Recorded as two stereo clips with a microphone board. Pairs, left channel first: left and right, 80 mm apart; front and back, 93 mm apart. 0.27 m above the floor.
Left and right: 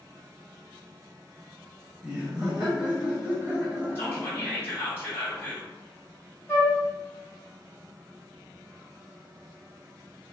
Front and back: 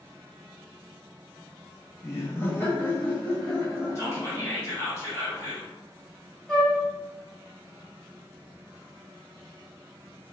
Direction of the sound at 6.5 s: 70° left.